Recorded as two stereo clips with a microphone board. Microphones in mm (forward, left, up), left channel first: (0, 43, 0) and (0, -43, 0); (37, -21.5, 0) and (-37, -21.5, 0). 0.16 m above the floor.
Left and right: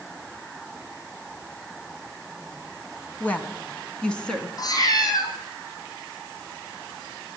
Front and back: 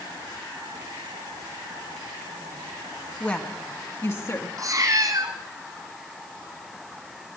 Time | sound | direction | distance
3.2 | a woman speaking | 50° left | 1.5 m
4.6 | a cat meowing | 135° left | 2.5 m